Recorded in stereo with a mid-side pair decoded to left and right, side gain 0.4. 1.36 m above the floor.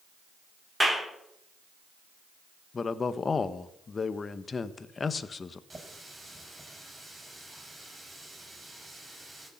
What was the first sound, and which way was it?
A clap, 10° right.